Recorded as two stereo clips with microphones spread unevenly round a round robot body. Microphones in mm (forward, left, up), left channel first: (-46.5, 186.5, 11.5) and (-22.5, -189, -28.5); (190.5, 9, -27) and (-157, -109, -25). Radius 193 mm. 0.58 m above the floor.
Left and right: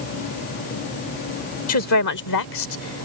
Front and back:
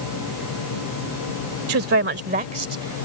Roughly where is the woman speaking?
Behind left.